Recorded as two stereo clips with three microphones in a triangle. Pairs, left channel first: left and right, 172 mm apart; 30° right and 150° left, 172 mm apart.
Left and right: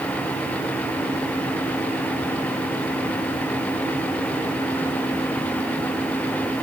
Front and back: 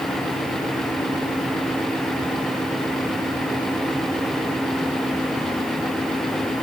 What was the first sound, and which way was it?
Only background noise.